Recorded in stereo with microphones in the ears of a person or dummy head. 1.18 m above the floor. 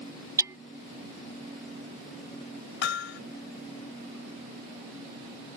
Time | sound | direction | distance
0.4 | hammering | 20° right (ahead or behind) | ?
2.8 | hammering | 75° left (ahead or behind) | ?